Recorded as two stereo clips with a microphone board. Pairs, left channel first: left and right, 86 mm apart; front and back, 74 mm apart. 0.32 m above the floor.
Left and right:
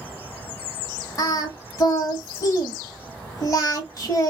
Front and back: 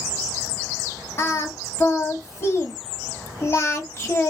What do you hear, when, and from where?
1.2 s singing: 45° left, 1.2 m